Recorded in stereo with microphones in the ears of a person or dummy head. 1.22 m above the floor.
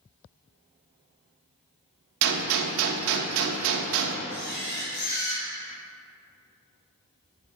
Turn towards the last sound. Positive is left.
turn(degrees=55)  # may be behind; listen again after turning